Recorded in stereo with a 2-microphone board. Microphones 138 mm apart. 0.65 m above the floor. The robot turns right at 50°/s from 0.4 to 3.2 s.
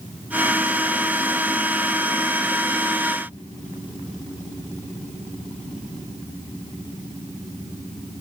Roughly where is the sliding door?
I don't hear a sliding door.